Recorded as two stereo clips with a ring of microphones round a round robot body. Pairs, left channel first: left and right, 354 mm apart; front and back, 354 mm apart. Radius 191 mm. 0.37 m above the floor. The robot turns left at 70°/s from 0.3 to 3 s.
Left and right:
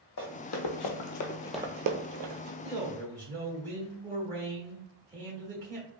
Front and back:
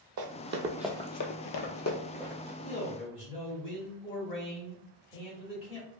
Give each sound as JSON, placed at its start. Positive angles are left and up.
{"t": 0.2, "sound": "running footsteps", "azimuth_deg": 145, "distance_m": 0.9}
{"t": 2.6, "sound": "a man speaking", "azimuth_deg": -5, "distance_m": 1.3}